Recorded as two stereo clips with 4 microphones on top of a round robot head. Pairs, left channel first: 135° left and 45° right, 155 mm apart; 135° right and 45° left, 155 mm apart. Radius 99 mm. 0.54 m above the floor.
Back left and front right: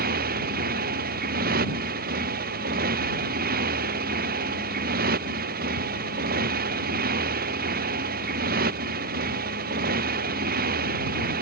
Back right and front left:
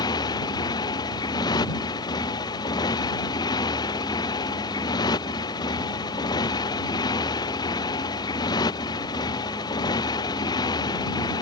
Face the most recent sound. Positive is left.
turn(degrees=-70)